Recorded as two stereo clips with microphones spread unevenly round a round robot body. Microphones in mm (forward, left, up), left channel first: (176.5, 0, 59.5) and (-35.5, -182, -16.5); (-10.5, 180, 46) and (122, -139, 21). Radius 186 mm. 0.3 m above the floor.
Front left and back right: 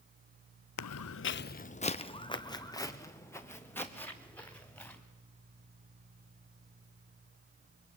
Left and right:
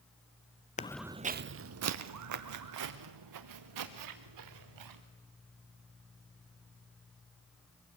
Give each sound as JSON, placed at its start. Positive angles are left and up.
{"t": 0.8, "sound": "footsteps", "azimuth_deg": 45, "distance_m": 0.6}